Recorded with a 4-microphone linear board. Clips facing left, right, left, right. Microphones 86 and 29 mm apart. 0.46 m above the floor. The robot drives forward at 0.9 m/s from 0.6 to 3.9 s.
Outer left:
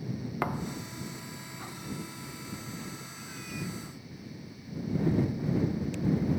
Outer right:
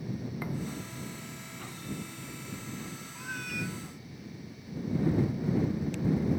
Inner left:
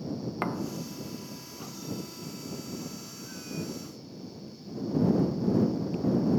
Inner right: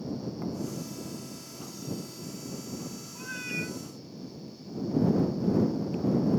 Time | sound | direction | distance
0.4 | a thud | 70° left (ahead or behind) | ?
3.1 | a cat meowing | 65° right (ahead or behind) | ?